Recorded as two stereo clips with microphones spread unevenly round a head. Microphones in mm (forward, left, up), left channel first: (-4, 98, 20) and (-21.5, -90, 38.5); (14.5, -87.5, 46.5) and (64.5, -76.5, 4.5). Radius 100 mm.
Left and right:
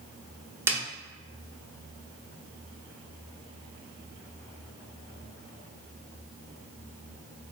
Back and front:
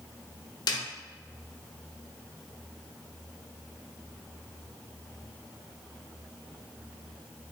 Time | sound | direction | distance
0.7 | a snare drum | 175° right | 0.8 m